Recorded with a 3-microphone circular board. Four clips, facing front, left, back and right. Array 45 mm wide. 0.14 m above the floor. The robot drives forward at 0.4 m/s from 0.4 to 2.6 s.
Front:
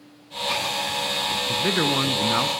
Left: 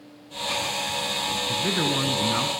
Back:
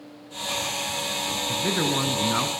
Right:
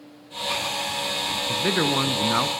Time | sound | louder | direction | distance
1.5 | a man speaking | right 3 dB, front 2 dB | 45° right | 1.3 m